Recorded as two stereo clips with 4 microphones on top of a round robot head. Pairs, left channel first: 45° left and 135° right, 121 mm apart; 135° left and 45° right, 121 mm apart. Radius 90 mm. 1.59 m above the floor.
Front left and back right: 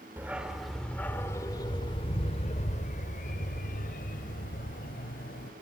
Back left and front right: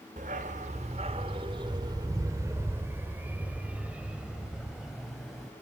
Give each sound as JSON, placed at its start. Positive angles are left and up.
{"t": 0.2, "sound": "a dog barking", "azimuth_deg": -60, "distance_m": 1.5}